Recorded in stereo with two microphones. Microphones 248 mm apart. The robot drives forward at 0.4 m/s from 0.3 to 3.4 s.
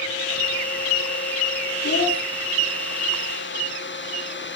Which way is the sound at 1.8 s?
55° left (ahead or behind).